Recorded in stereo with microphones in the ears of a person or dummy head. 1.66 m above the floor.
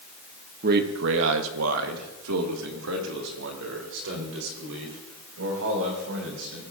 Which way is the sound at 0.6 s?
50° right (ahead or behind).